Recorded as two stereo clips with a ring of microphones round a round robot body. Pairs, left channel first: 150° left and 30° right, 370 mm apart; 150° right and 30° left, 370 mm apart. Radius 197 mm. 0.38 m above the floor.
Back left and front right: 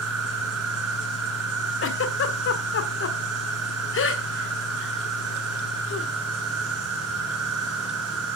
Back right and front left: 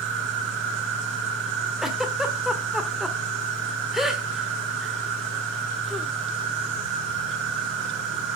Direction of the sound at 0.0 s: 25° left.